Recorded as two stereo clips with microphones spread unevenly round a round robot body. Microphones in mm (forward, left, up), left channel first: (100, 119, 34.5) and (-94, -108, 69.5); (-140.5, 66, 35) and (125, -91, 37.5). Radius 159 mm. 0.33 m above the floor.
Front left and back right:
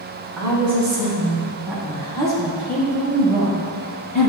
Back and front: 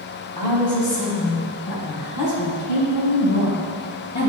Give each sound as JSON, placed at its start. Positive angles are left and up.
{"t": 0.4, "sound": "a woman speaking", "azimuth_deg": -155, "distance_m": 1.7}